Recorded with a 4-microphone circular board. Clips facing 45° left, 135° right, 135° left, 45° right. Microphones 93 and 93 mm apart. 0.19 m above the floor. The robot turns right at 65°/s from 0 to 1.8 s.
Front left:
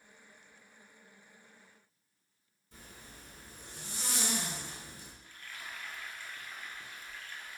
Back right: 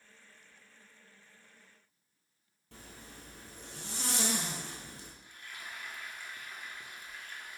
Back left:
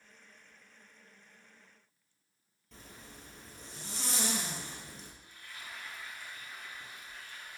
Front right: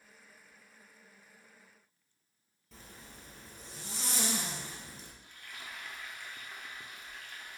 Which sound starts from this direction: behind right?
A zipper, at 2.7 s.